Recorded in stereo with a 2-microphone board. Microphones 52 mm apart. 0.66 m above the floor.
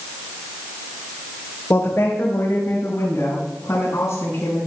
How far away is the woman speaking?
About 2.5 m.